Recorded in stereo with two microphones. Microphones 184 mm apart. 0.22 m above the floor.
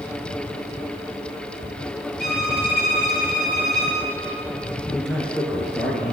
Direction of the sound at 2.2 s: 60° left (ahead or behind).